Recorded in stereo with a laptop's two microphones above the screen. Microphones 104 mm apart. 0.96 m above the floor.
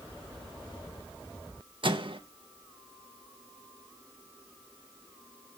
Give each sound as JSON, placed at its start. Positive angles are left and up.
{"t": 1.8, "sound": "a microwave", "side_deg": -60, "distance_m": 0.9}